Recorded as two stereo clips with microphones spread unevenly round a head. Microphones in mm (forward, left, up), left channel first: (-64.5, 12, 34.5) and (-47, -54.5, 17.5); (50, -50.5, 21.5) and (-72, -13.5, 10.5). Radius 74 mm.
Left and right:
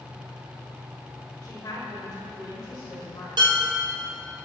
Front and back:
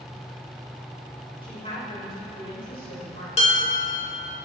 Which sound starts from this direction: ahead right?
Dishes clattering, at 3.4 s.